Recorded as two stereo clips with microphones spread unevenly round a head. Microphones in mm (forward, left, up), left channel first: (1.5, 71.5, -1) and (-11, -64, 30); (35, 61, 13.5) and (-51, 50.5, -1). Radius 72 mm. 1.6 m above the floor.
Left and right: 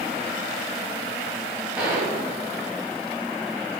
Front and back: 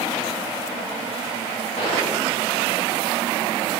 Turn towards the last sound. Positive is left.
turn(degrees=-15)